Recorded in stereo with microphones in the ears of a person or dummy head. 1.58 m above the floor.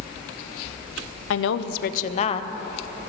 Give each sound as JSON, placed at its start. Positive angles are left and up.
{"t": 1.3, "sound": "a woman speaking", "side_deg": 80, "distance_m": 0.6}